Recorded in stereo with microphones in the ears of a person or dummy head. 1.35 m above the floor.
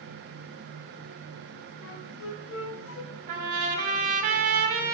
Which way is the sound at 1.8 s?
70° left (ahead or behind).